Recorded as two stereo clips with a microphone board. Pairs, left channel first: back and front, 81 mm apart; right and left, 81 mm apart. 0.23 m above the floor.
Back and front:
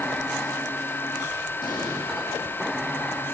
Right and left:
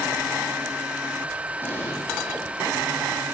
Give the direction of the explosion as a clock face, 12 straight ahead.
5 o'clock.